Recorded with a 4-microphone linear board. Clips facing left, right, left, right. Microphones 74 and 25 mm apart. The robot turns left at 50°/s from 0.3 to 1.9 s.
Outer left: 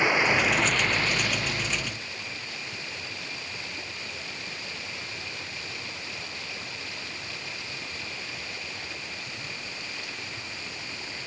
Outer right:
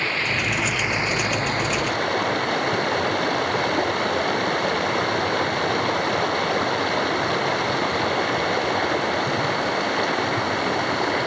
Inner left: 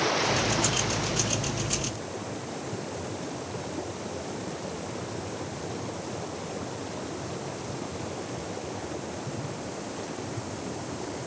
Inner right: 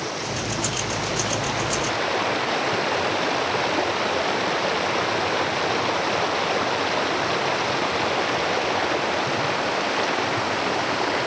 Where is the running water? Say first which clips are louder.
Outer left 2 dB, inner left 2 dB; 15° left; by 11.3 s 65° right.